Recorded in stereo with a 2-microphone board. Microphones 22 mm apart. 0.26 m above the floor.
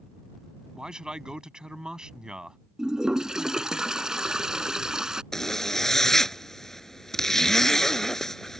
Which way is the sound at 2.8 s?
35° right (ahead or behind).